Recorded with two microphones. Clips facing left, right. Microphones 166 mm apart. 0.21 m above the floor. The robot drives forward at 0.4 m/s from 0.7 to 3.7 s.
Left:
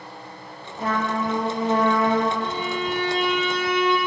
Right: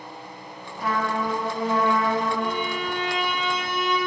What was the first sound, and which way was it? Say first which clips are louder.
A trumpet: left 1 dB; 50° left (ahead or behind).